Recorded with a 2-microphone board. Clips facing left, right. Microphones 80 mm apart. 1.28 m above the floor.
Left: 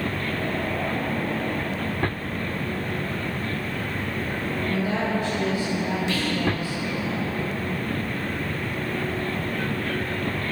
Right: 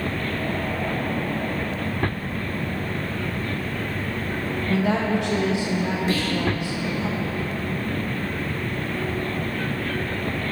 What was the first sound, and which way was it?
A woman speaking, 75° right (ahead or behind).